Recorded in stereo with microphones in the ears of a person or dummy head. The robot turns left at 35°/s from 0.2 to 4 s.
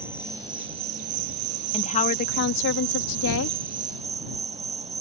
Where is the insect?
10° right; by 5.0 s 140° right.